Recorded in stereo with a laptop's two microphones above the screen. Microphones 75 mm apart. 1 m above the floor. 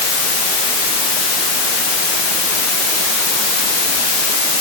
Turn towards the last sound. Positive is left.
No sound to turn to.